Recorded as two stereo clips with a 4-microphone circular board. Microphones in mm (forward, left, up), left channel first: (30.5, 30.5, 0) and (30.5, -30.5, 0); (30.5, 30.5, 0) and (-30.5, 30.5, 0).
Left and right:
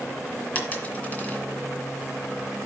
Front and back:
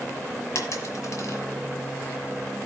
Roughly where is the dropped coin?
Ahead left.